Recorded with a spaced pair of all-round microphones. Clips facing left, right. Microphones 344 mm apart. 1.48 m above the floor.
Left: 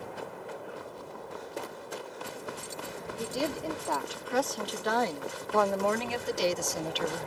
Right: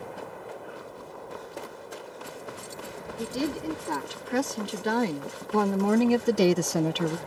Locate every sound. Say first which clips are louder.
3.2 s a woman speaking: right 4 dB; 30° right (ahead or behind); by 7.2 s 50° right (ahead or behind)